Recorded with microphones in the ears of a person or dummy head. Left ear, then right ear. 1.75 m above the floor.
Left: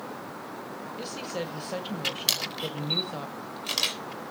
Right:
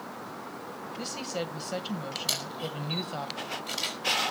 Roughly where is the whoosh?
No whoosh in this recording.